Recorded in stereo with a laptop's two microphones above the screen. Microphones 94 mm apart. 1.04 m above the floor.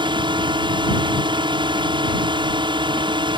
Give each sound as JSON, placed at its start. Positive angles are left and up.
{"t": 0.0, "sound": "a drone", "side_deg": -55}